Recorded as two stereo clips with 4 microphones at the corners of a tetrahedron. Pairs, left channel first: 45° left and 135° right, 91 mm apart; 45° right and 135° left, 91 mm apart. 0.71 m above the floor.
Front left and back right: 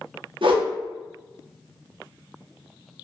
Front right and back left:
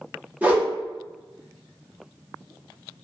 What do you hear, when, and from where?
0.4 s a whoosh: 155° right, 0.6 m